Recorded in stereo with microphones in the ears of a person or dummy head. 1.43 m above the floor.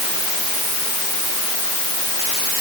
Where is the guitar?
I don't hear a guitar.